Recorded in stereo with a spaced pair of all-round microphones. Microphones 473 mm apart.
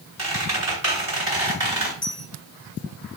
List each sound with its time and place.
0.2 s a squeak: 35° left (ahead or behind), 1.9 m
2.0 s a dropped coin: 25° left (ahead or behind), 2 m